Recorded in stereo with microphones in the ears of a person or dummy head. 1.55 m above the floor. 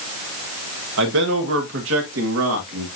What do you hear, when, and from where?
1.0 s a man speaking: 80° right, 1.8 m; by 2.9 s 85° right, 3 m